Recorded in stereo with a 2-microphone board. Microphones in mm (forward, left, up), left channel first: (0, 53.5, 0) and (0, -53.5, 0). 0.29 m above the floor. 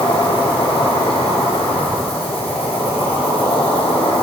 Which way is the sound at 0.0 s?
65° left (ahead or behind).